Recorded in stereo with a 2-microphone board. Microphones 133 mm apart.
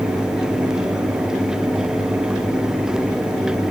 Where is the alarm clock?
I don't hear an alarm clock.